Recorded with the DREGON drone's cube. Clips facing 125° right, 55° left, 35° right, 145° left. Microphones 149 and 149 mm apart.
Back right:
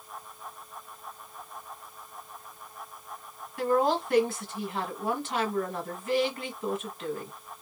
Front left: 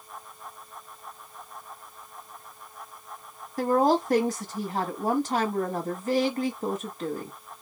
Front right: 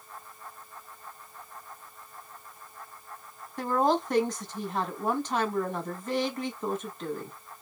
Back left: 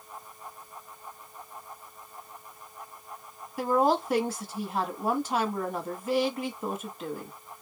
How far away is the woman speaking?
About 1.4 m.